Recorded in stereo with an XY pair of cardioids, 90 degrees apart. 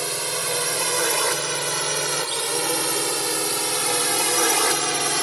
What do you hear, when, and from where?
0.0 s a drone: 15° right; by 5.2 s 5° right